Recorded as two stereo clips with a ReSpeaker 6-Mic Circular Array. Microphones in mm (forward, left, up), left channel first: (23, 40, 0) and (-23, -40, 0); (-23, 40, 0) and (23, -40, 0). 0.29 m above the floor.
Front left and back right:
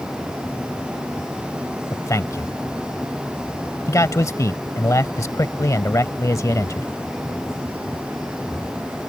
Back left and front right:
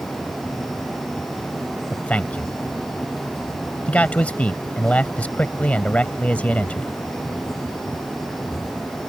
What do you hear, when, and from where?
1.9 s a man speaking: 55° left